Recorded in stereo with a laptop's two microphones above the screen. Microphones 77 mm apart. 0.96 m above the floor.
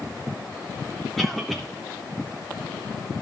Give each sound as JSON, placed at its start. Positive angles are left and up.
{"t": 1.2, "sound": "a cough", "side_deg": 0, "distance_m": 0.9}